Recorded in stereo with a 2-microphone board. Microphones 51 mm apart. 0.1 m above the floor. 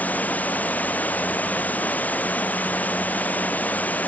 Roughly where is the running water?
Left.